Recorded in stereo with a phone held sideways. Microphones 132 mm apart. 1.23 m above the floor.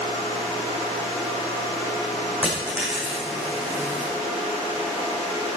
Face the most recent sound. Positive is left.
turn(degrees=-10)  # may be behind; listen again after turning